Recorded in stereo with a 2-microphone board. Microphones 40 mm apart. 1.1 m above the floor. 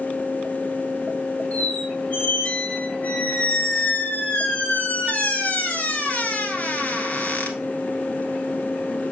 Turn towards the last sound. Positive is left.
turn(degrees=40)  # may be behind; listen again after turning